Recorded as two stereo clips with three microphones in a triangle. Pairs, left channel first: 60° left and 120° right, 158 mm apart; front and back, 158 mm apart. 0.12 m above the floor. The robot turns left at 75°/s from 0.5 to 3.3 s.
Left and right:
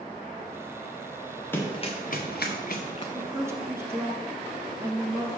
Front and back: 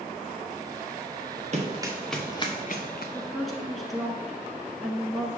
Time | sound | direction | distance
1.5 | running footsteps | 135° left | 1.5 m
3.1 | a woman speaking | 75° right | 1.1 m